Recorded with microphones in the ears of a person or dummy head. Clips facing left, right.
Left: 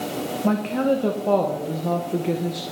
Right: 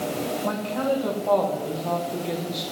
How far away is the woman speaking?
About 0.6 m.